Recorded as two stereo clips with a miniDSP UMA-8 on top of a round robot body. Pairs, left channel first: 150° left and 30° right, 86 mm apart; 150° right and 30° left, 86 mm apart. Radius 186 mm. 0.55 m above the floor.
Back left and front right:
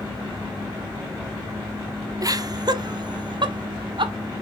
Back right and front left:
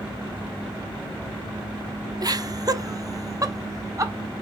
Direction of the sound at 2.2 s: 5° left.